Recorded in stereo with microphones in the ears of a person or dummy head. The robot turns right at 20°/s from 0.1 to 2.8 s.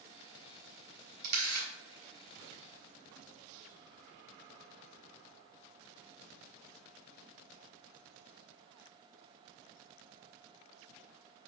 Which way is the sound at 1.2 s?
55° right (ahead or behind).